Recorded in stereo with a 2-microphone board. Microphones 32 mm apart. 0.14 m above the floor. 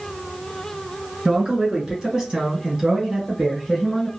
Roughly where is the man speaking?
Right.